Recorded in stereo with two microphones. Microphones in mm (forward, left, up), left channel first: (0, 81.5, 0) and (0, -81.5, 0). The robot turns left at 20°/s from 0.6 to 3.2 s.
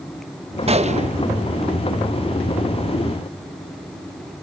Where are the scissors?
I don't hear scissors.